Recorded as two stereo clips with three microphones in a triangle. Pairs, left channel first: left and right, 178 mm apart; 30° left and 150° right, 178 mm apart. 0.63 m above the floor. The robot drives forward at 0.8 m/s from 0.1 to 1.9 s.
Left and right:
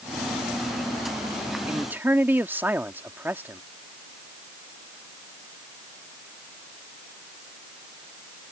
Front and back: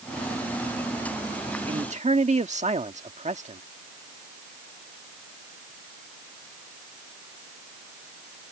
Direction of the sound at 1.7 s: 160° right.